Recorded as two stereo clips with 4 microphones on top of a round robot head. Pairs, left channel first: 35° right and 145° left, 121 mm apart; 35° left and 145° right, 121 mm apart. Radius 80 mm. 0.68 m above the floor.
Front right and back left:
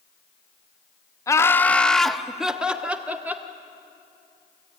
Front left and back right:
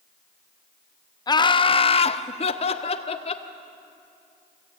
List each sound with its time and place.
1.3 s laughter: 10° left, 0.8 m; by 3.5 s 70° left, 1.9 m